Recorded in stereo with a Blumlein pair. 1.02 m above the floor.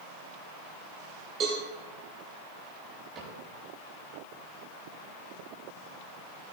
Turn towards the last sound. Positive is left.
turn(degrees=-25)